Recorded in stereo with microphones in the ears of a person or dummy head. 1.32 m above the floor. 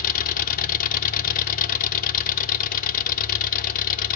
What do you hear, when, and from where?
0.0 s an engine running: 50° left (ahead or behind), 0.8 m